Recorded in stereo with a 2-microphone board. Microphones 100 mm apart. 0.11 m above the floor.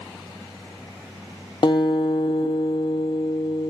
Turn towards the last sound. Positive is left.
turn(degrees=55)  # may be behind; listen again after turning